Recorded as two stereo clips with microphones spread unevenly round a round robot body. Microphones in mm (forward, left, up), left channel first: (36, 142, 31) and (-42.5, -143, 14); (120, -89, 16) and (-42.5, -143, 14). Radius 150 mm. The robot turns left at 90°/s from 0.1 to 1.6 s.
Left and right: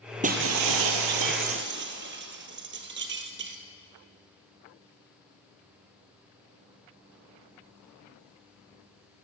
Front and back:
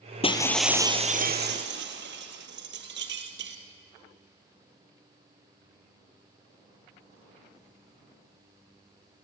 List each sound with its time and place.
0.2 s breaking glass: 35° right, 2.0 m; by 3.6 s 160° right, 2.0 m